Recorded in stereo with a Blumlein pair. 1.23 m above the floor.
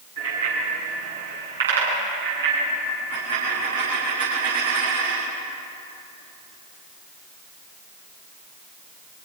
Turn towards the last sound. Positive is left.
turn(degrees=-70)